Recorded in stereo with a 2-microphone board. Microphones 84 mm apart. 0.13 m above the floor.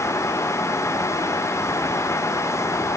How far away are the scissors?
No scissors in this recording.